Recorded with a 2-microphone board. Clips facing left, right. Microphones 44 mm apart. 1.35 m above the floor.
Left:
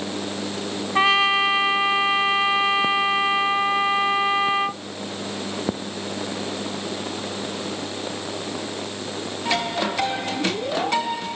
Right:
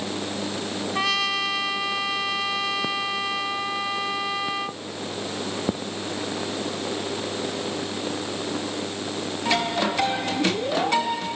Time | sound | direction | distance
0.9 | a trumpet | 30° left (ahead or behind) | ?